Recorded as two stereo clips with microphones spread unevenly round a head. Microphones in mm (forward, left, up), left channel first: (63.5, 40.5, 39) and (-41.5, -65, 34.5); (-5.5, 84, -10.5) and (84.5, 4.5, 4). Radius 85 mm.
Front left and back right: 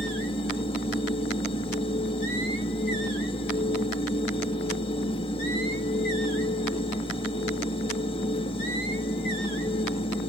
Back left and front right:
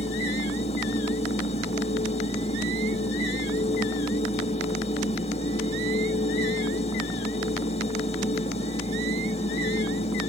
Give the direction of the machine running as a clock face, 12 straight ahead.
9 o'clock.